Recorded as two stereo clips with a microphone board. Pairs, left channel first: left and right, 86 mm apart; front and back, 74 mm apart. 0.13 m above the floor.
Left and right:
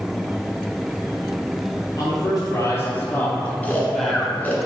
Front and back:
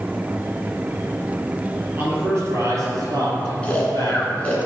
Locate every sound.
2.0 s a man speaking: 125° left, 2.5 m; by 4.6 s 170° right, 3 m
3.6 s snoring: 45° left, 1.5 m